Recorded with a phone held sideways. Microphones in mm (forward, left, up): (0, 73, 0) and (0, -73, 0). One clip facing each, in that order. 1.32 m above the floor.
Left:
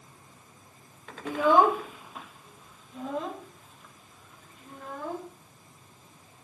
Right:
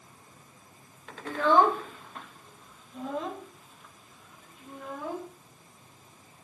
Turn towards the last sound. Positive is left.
turn(degrees=0)  # may be behind; listen again after turning